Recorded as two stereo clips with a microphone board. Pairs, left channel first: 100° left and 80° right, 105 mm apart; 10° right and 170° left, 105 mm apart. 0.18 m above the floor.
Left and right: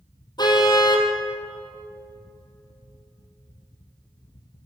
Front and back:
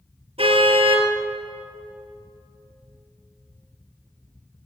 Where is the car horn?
145° left, 3 m.